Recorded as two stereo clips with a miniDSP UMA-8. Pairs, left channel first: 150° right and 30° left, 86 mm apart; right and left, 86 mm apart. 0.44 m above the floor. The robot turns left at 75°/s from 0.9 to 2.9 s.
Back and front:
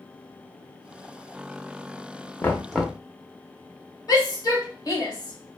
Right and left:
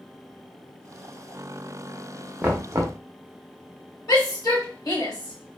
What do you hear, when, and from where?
2.4 s knocking: 155° left, 0.6 m; by 3.0 s 120° left, 0.6 m
4.1 s a shout: 120° right, 1.6 m